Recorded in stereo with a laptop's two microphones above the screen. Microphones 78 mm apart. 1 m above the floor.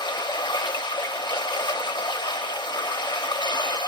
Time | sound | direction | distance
0.0 | running water | 70° left (ahead or behind) | 1.1 m